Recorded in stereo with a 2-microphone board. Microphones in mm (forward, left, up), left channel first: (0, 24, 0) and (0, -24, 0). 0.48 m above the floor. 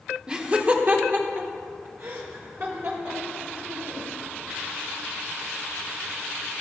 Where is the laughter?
20° right (ahead or behind), 0.9 m; by 4.1 s 60° right (ahead or behind), 2.5 m.